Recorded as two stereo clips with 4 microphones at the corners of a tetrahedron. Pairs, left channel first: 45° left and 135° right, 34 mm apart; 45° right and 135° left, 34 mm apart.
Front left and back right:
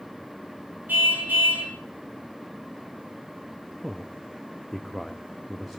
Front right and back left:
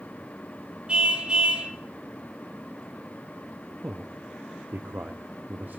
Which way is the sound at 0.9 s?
165° right.